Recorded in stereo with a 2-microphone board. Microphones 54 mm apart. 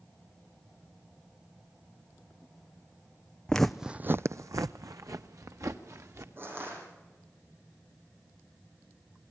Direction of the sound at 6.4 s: 40° right (ahead or behind).